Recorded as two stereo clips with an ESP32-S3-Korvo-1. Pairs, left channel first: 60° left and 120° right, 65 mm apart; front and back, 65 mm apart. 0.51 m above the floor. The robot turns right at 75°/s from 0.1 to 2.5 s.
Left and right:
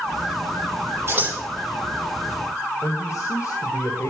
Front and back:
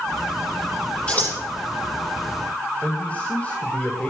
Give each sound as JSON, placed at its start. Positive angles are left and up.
{"t": 1.1, "sound": "scissors", "azimuth_deg": -75, "distance_m": 10.0}
{"t": 2.8, "sound": "a man speaking", "azimuth_deg": 60, "distance_m": 2.5}